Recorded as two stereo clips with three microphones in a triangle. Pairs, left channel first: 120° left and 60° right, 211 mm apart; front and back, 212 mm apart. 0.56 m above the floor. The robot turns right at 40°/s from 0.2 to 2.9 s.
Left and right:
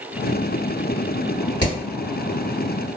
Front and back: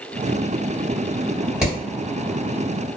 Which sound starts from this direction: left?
Hammering, at 1.6 s.